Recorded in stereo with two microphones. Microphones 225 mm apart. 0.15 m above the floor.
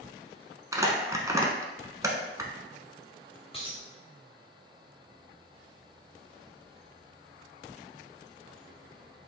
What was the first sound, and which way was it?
Crumpling, 15° right (ahead or behind).